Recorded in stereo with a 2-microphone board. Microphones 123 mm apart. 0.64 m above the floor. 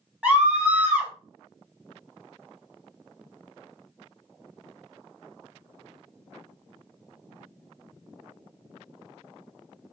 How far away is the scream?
About 1.5 m.